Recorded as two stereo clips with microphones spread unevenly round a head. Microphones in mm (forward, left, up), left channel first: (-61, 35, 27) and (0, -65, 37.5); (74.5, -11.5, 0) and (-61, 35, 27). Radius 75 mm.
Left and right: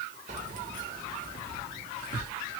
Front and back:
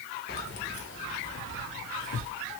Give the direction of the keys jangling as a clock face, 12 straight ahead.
2 o'clock.